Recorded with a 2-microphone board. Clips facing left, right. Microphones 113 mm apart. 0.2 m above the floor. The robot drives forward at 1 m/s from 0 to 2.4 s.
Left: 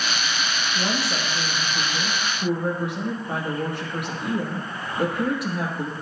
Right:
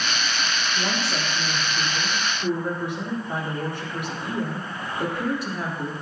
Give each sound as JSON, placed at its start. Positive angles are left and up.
{"t": 0.8, "sound": "a woman speaking", "side_deg": 80, "distance_m": 5.5}